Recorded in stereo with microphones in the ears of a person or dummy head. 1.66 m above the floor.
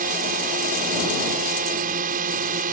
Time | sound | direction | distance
0.0 | a drone | 50° right (ahead or behind) | ?